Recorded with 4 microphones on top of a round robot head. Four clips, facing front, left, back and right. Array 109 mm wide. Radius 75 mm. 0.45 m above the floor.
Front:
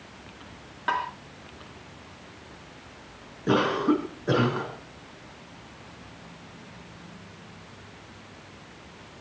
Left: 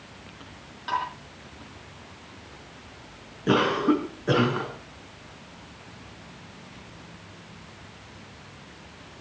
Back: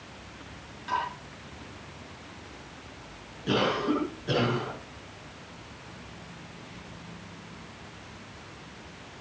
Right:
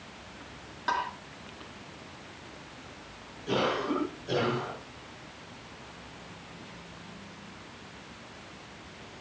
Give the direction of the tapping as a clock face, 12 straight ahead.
1 o'clock.